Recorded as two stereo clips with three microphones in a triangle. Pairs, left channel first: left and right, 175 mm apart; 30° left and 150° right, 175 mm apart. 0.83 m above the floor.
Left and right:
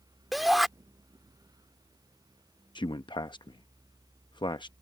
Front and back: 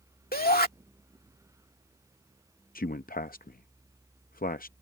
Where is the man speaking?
35° left.